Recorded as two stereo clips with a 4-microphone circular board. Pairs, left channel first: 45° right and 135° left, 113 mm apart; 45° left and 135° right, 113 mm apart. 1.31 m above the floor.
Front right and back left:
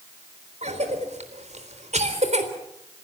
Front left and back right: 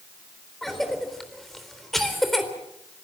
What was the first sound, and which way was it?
A cough, 135° left.